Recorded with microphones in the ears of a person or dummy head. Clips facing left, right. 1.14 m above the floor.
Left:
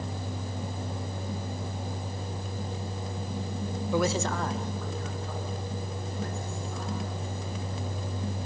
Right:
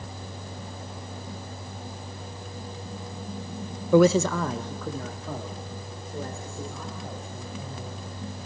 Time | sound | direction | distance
3.9 | a man speaking | 50° right (ahead or behind) | 0.5 m